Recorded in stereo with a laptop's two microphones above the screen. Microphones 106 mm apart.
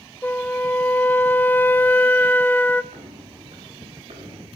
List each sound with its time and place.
0.2 s a flute: 15° left (ahead or behind), 0.6 m
2.9 s footsteps: 70° right (ahead or behind), 6 m; by 4.5 s 65° right (ahead or behind), 5.5 m